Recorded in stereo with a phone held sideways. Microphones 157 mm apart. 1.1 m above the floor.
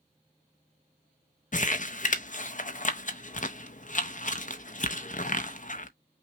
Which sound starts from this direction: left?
Crumpling, at 1.5 s.